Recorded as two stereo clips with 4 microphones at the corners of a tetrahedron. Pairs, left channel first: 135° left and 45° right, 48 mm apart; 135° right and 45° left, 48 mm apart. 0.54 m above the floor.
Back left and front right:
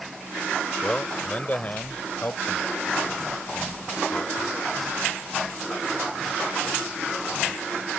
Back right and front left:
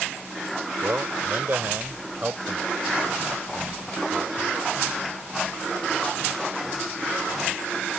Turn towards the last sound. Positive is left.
turn(degrees=105)